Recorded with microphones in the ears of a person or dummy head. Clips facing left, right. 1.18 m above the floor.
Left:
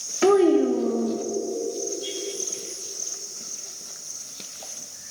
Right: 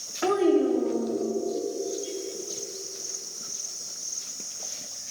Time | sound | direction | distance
0.2 | a child speaking | 45° left (ahead or behind) | 0.6 m